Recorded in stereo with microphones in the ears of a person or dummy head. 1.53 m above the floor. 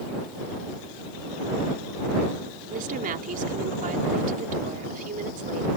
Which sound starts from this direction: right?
A woman speaking, at 2.7 s.